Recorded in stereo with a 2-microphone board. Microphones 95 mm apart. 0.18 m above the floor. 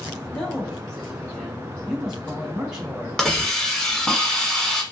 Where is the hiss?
10° left (ahead or behind), 1.1 m.